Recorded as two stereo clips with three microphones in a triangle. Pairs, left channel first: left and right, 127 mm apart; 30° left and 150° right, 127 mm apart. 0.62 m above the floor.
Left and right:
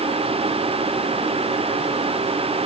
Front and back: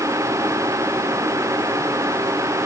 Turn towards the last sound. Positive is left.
No sound to turn to.